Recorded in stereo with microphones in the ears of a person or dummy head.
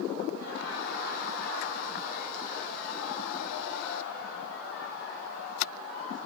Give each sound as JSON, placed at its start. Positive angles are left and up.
{"t": 0.3, "sound": "laughter", "side_deg": 85, "distance_m": 3.0}